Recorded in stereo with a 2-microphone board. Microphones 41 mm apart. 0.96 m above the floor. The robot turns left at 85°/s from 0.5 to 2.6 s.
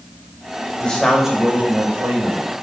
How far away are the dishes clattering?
I don't hear dishes clattering.